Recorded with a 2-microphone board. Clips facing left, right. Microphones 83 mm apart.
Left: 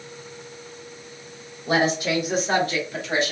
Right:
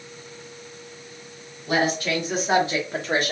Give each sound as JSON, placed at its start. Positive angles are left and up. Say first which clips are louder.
{"t": 1.7, "sound": "a woman speaking", "louder": "left 1 dB", "side_deg": 30, "distance_m": 1.3}